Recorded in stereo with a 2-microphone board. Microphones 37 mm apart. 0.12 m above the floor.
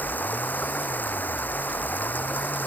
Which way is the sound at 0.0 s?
55° left (ahead or behind).